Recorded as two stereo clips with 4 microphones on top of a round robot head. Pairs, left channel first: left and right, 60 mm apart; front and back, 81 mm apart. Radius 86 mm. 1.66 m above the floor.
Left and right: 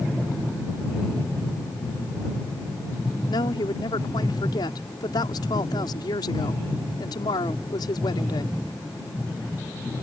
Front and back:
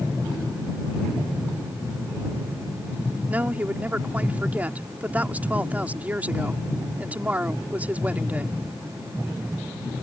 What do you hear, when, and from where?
3.3 s a woman speaking: 110° left